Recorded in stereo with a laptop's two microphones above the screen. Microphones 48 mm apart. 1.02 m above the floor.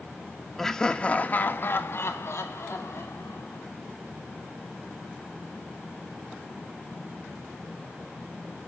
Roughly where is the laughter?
Centre.